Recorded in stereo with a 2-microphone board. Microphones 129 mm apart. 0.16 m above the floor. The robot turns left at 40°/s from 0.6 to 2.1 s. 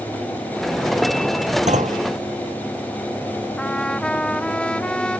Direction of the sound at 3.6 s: 5° left (ahead or behind).